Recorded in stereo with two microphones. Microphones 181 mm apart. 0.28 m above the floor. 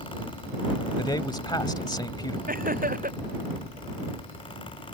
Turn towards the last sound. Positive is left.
turn(degrees=-50)  # may be behind; listen again after turning